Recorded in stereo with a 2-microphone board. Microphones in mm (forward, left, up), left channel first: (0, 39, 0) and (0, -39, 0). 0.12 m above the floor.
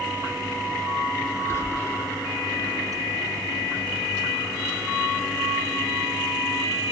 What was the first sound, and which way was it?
Whispering, 30° left (ahead or behind).